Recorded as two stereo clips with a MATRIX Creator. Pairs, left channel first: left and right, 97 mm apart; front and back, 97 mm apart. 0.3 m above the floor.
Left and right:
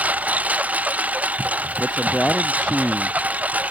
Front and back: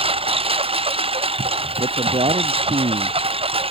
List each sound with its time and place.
0.0 s a lawn mower: 165° right
1.8 s a man speaking: 170° left